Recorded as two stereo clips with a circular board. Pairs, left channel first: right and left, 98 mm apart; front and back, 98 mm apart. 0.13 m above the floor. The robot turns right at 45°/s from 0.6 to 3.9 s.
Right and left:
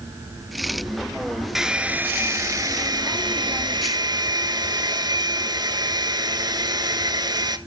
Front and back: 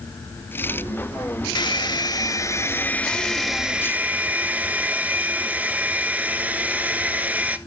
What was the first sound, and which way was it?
A hair dryer, 5° left.